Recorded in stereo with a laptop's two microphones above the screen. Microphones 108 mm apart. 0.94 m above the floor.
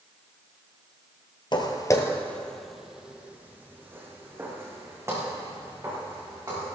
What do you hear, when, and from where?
1.5 s footsteps: 45° left (ahead or behind), 1.4 m; by 6.7 s 30° right (ahead or behind), 7 m